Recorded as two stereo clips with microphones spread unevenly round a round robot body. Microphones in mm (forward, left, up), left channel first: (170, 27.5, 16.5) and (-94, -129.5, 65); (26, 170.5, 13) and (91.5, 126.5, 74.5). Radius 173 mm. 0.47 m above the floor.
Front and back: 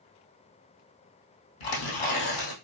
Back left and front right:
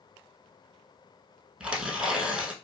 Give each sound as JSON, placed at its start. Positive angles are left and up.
{"t": 1.6, "sound": "tearing paper", "azimuth_deg": 40, "distance_m": 2.5}